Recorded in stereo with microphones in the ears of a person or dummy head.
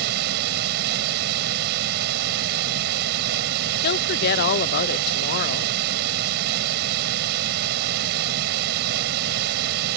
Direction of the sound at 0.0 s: 55° right (ahead or behind).